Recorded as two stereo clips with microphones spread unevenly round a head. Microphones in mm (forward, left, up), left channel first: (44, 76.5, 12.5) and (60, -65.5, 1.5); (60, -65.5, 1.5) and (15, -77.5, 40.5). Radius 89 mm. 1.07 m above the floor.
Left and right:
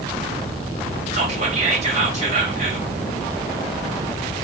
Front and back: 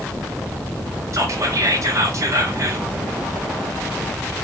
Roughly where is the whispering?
Behind right.